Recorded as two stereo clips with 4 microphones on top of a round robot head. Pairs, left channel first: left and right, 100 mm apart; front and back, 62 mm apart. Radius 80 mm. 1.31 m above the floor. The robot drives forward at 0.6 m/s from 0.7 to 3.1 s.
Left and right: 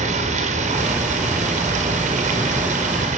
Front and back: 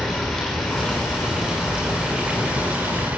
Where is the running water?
85° right, 4.5 m; by 3.2 s 105° right, 4.5 m.